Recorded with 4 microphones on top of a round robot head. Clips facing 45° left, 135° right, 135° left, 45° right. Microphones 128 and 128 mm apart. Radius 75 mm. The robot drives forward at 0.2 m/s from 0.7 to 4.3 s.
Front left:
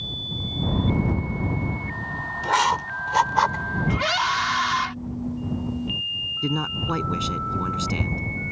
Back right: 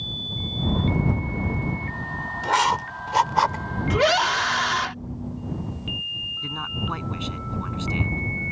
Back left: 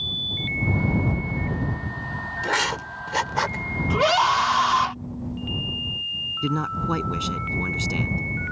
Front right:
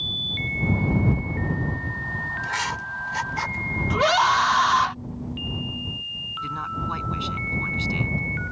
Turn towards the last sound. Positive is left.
turn(degrees=95)